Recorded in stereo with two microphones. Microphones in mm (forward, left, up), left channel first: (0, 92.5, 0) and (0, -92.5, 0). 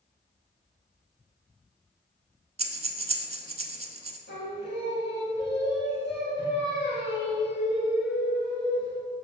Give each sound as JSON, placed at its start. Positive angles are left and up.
{"t": 2.6, "sound": "breathing", "side_deg": -35, "distance_m": 0.6}
{"t": 4.3, "sound": "singing", "side_deg": 75, "distance_m": 2.0}